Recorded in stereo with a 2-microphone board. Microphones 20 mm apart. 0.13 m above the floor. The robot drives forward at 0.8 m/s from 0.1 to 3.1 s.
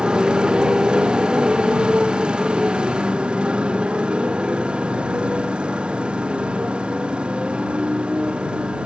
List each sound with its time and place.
0.0 s a motorcycle: 55° right (ahead or behind); by 8.9 s 70° right (ahead or behind)